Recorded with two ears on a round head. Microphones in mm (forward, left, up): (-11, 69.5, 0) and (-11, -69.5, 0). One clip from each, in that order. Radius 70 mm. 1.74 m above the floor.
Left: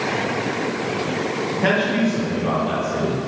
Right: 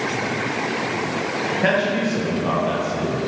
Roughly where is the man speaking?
Centre.